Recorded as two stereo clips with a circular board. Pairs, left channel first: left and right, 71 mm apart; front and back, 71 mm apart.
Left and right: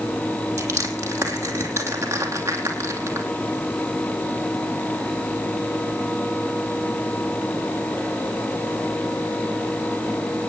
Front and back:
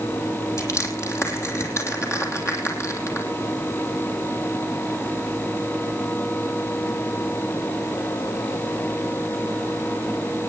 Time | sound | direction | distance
0.6 | crushing | 40° right | 3 m